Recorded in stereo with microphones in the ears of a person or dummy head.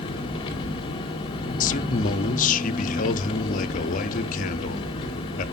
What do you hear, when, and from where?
0.0 s an engine running: 35° left (ahead or behind), 0.8 m
1.6 s a man speaking: 45° left (ahead or behind), 0.5 m